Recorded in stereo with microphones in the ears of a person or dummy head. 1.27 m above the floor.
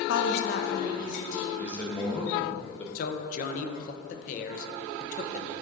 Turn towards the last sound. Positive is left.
turn(degrees=55)  # may be behind; listen again after turning